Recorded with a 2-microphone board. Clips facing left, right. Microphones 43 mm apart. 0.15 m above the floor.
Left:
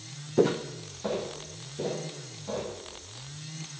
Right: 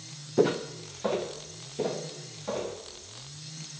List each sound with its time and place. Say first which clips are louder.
0.4 s footsteps: even; centre (ahead or behind), 0.5 m; by 2.7 s 30° right (ahead or behind), 3.5 m